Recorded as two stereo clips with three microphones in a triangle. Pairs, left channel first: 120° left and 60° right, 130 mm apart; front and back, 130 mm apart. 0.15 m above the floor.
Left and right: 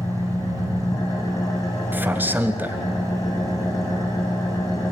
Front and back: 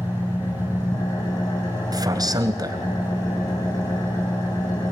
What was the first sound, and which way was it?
An engine running, 55° left.